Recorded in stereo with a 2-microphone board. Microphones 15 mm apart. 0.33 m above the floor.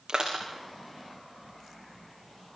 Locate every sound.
0.1 s crushing: 45° right (ahead or behind), 7.5 m